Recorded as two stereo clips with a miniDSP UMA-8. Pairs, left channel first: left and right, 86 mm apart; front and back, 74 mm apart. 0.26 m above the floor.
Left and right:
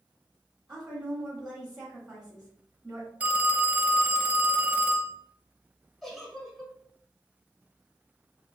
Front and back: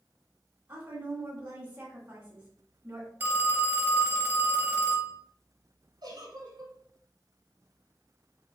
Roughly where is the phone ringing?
Behind right.